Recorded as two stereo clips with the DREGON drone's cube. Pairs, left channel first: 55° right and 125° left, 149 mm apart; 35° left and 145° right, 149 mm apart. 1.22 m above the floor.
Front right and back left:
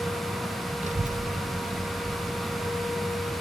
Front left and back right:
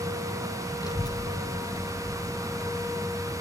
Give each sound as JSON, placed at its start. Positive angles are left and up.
{"t": 0.8, "sound": "a child speaking", "azimuth_deg": 95, "distance_m": 0.5}